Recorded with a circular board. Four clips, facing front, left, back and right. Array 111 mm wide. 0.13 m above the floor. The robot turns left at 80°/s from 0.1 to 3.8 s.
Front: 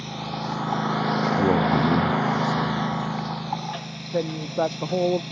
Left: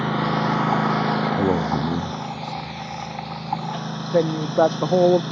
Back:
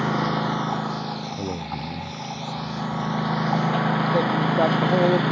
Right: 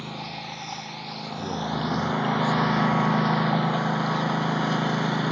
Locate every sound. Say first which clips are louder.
0.0 s a lawn mower: left 14 dB, back 8 dB; 140° left; by 5.3 s 155° right
1.4 s a man speaking: left 8 dB, front 10 dB; 65° left; by 2.9 s 55° right
4.1 s a woman speaking: left 7 dB, back 1 dB; 95° left